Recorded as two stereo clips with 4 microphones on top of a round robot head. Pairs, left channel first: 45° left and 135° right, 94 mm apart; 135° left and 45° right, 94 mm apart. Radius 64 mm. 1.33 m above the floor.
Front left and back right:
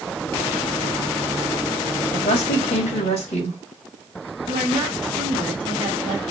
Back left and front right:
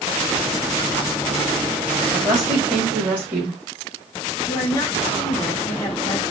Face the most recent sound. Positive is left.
turn(degrees=-170)